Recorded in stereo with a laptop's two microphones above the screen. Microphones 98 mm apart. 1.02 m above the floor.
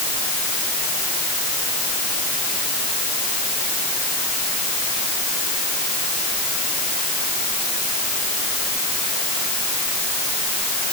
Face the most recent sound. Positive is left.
No sound to turn to.